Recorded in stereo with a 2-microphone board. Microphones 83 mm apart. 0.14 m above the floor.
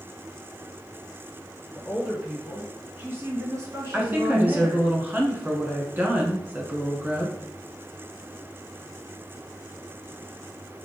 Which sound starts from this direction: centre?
A woman speaking, at 1.7 s.